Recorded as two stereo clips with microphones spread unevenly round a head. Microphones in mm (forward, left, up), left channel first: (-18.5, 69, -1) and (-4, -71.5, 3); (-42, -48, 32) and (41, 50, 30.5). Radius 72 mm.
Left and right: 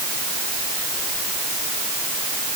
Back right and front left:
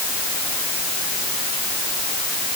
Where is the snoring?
No snoring in this recording.